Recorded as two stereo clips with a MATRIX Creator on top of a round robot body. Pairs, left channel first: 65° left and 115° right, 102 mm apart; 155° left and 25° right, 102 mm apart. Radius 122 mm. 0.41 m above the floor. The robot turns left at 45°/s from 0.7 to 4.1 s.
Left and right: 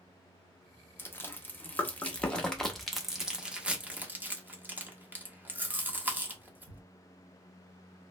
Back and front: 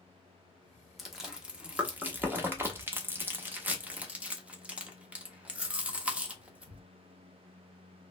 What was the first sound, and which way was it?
Chewing, 65° left.